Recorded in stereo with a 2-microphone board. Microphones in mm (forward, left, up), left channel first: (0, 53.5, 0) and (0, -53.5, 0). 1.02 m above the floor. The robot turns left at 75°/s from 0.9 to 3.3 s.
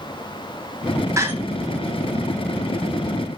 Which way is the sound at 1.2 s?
25° right (ahead or behind).